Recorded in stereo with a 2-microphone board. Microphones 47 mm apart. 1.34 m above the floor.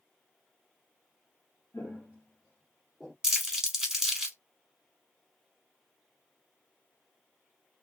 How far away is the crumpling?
About 1.5 m.